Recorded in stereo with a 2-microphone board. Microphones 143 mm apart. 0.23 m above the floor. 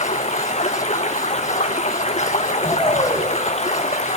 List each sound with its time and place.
0.0 s running water: 50° left (ahead or behind), 1.6 m
2.6 s a shout: 40° left (ahead or behind), 4.5 m